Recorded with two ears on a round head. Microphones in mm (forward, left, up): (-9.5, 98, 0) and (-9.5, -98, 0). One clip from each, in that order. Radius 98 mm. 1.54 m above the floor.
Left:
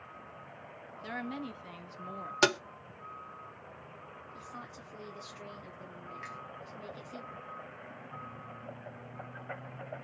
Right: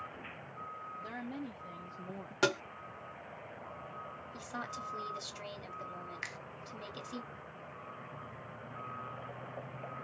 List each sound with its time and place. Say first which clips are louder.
1.0 s a woman speaking: left 4 dB; 70° left (ahead or behind), 1.0 m; by 2.3 s 65° left (ahead or behind), 1.0 m
2.4 s tapping: left 4 dB; 40° left (ahead or behind), 0.6 m
4.3 s a woman speaking: right 6 dB; 40° right (ahead or behind), 1.0 m
6.2 s a finger snap: right 2 dB; 45° right (ahead or behind), 0.6 m